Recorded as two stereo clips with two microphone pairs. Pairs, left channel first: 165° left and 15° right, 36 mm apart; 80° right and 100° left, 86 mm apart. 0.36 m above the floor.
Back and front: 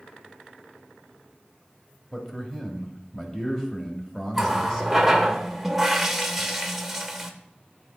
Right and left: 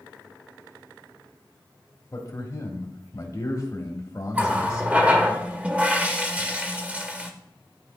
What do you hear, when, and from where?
2.1 s a man speaking: 125° right, 1.5 m
4.3 s a running tap: 60° left, 0.8 m